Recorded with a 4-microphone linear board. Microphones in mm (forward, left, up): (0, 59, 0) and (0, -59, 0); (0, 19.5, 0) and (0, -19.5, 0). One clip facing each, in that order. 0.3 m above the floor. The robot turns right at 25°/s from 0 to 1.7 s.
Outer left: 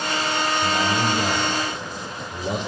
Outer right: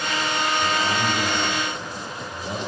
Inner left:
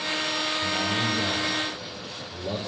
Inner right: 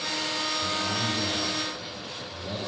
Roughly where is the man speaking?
Centre.